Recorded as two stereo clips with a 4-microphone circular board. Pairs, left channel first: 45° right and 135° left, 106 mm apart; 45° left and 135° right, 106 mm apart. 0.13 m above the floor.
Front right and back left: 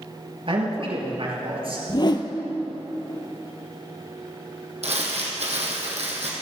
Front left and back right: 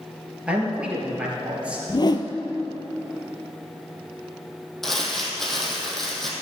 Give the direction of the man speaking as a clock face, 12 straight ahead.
7 o'clock.